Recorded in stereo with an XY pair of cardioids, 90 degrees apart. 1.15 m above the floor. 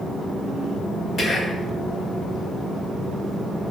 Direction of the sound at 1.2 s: 60° left.